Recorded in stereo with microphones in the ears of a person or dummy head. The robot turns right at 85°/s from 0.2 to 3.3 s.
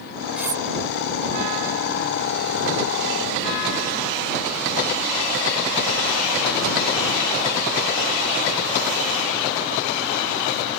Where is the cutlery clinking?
5° right (ahead or behind); by 0.6 s 30° right (ahead or behind).